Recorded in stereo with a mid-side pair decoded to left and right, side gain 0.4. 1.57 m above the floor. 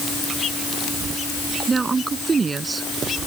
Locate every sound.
1.7 s a woman speaking: 35° right